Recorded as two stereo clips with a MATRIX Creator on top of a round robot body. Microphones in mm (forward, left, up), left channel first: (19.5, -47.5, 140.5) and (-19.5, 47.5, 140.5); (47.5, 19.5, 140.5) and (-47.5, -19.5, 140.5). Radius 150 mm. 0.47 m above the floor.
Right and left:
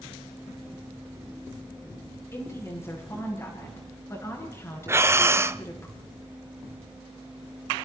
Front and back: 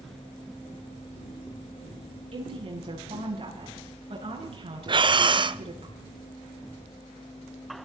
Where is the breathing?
175° left, 1.0 m.